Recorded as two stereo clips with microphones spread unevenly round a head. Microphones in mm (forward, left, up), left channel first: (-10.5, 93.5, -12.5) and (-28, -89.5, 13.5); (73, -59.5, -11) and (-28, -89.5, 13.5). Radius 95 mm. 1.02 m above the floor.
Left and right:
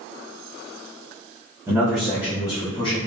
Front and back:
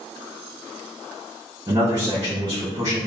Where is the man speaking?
170° right, 0.7 m; by 3.0 s 135° left, 1.1 m.